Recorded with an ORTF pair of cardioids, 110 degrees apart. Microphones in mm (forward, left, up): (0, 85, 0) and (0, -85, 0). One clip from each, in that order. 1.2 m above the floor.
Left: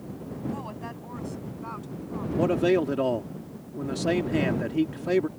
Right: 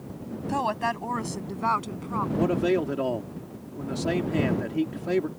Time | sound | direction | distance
0.5 | a woman speaking | 70° right | ?
2.4 | a man speaking | 15° left | ?